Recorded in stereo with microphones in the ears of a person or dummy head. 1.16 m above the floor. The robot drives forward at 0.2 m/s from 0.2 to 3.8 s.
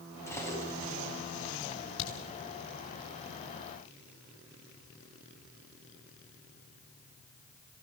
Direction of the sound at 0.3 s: 15° left (ahead or behind).